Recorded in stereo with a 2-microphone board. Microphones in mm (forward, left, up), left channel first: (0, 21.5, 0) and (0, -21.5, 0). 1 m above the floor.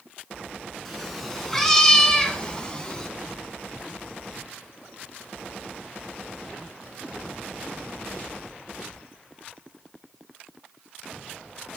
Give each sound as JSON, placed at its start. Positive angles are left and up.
{"t": 0.8, "sound": "a cat meowing", "side_deg": 5, "distance_m": 1.6}